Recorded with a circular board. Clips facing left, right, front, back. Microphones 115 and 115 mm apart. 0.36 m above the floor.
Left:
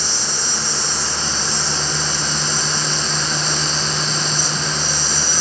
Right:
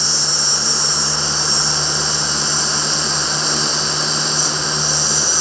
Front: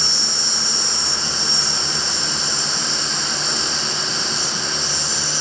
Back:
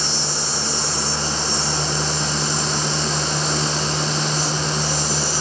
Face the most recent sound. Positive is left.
turn(degrees=60)